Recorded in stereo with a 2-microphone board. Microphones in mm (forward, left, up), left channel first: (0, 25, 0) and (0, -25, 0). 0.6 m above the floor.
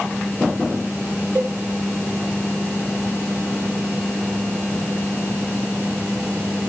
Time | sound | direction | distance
1.4 | a cowbell | 65° right (ahead or behind) | 1.2 m